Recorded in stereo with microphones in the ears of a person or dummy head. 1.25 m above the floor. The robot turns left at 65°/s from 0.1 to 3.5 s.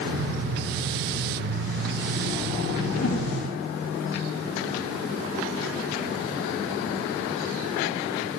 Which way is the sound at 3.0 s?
80° left.